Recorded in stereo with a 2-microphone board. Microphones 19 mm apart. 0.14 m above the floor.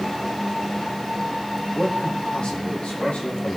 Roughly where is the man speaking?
Left.